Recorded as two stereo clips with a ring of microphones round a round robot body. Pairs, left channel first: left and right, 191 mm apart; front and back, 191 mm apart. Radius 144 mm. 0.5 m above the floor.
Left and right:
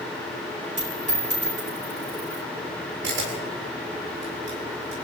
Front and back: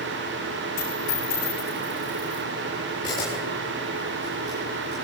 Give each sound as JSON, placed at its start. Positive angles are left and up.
{"t": 0.8, "sound": "a dropped coin", "azimuth_deg": -40, "distance_m": 6.5}
{"t": 3.0, "sound": "a camera shutter", "azimuth_deg": -75, "distance_m": 8.5}